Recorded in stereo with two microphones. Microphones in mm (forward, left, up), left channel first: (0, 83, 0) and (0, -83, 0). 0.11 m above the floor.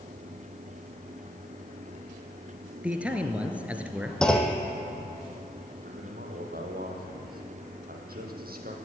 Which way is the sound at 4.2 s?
5° left (ahead or behind).